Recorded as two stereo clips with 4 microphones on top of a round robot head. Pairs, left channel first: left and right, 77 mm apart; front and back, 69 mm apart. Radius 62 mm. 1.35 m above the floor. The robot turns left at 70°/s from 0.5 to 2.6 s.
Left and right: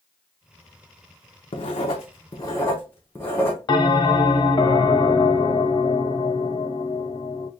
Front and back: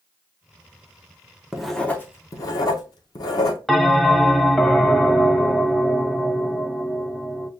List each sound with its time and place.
1.5 s writing: 95° left, 0.7 m; by 3.6 s 20° left, 0.7 m
3.7 s a bell: 85° left, 0.6 m